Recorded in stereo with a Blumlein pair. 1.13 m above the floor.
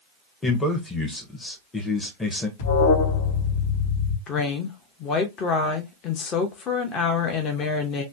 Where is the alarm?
60° left, 1.6 m.